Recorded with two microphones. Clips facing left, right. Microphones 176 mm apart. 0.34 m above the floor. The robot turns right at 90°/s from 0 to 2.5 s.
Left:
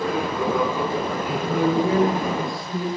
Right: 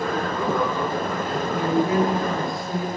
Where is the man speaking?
90° left, 8.5 m; by 2.9 s 160° right, 8.5 m.